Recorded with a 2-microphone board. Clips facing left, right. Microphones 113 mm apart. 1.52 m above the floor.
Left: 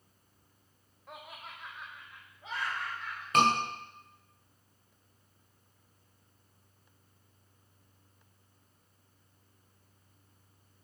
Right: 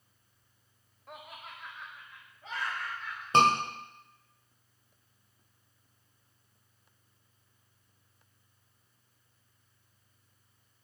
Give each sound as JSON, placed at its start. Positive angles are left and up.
{"t": 1.1, "sound": "laughter", "side_deg": 0, "distance_m": 0.6}
{"t": 3.3, "sound": "a scream", "side_deg": -25, "distance_m": 1.3}